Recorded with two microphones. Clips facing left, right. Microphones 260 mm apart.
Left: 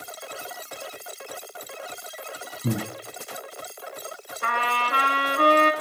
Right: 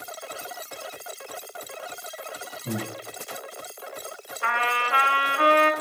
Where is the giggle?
I don't hear a giggle.